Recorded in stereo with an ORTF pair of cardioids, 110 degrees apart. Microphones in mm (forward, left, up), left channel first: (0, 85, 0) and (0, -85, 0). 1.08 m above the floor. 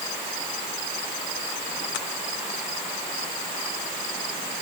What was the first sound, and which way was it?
Only background noise.